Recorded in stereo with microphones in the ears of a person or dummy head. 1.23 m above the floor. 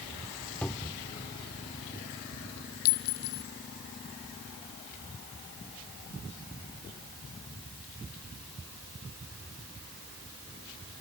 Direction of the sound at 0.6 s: 5° left (ahead or behind).